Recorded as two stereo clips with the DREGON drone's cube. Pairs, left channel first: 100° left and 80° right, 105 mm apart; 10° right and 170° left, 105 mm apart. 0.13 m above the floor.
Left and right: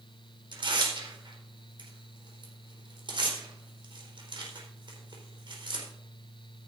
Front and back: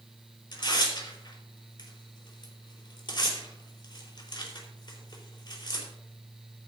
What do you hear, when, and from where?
0.5 s tearing paper: 50° right, 4.5 m